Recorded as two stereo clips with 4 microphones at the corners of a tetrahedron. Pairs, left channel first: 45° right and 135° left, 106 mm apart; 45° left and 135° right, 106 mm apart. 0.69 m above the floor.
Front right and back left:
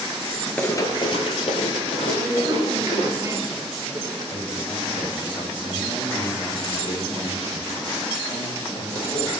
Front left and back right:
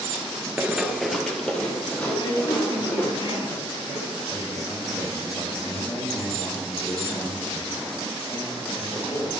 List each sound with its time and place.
0.6 s running footsteps: 100° right, 0.6 m; by 3.1 s 30° right, 3 m
2.1 s a woman speaking: 70° left, 1.6 m
4.3 s a man speaking: 5° right, 4 m